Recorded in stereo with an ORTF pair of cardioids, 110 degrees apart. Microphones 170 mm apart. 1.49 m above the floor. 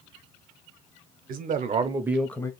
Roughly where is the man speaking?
Ahead right.